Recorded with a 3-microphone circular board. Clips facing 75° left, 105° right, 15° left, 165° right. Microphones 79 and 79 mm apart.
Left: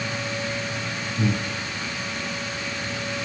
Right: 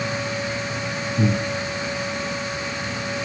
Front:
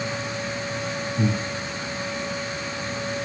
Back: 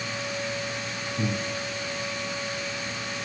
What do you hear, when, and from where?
1.2 s breathing: 80° right, 4.5 m